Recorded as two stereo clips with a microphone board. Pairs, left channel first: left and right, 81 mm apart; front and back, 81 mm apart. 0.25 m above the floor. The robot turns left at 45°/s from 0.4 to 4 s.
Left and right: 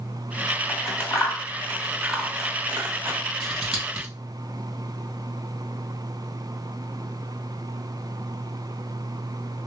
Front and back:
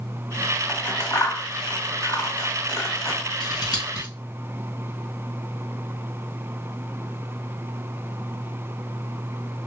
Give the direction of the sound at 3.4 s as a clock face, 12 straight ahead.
12 o'clock.